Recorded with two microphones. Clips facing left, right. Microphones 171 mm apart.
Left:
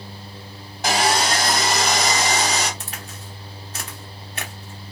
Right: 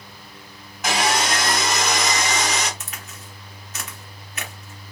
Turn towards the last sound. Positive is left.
turn(degrees=30)  # may be behind; listen again after turning